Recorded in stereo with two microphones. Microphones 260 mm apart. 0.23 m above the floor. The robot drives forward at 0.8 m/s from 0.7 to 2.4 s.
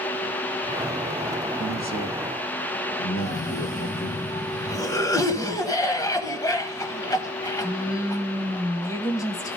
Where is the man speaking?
50° left (ahead or behind), 5 m; by 4.2 s 55° left (ahead or behind), 4.5 m.